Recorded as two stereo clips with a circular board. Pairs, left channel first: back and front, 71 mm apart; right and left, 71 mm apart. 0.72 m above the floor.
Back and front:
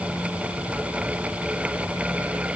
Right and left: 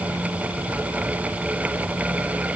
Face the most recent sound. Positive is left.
No sound to turn to.